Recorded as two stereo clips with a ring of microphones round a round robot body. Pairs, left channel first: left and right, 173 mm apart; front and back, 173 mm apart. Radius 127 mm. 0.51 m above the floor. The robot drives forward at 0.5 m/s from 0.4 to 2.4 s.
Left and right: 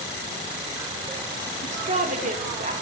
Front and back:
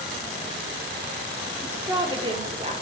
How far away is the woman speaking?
About 0.8 m.